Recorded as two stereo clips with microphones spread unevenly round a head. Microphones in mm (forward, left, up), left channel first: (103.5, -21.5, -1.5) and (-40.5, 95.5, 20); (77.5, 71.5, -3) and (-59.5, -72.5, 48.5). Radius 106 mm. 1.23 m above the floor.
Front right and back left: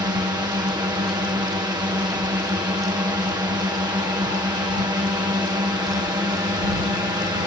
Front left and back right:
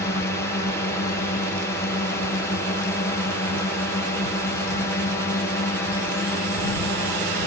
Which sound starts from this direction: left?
A drone, at 0.0 s.